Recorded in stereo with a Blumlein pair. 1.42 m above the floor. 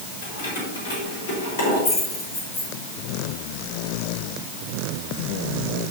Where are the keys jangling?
60° left, 4.5 m; by 2.7 s 45° left, 4 m.